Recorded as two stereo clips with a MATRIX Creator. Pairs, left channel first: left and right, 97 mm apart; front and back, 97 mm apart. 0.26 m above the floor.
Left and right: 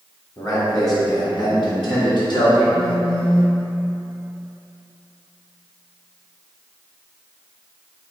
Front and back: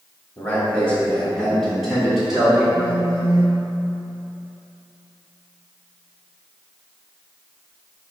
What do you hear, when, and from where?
0.4 s a man speaking: 60° left, 1.5 m; by 2.6 s 100° left, 2.5 m
2.7 s a phone buzzing: 160° left, 1.1 m